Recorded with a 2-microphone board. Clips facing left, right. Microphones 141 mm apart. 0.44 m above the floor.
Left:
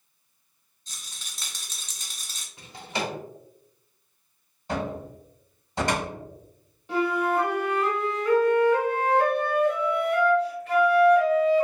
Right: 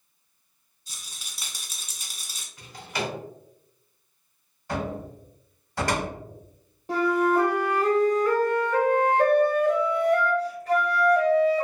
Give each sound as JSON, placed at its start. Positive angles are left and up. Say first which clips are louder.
{"t": 0.9, "sound": "a rattle", "louder": "even", "side_deg": -10, "distance_m": 0.7}
{"t": 2.6, "sound": "a drawer", "louder": "even", "side_deg": 25, "distance_m": 1.0}
{"t": 4.7, "sound": "a cupboard door", "louder": "even", "side_deg": 20, "distance_m": 1.3}
{"t": 6.9, "sound": "a flute", "louder": "right 2 dB", "side_deg": -35, "distance_m": 0.8}